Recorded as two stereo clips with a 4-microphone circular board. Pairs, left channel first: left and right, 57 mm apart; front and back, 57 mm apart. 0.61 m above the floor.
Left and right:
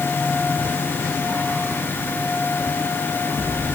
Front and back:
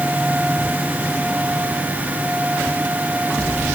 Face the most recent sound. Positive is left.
No sound to turn to.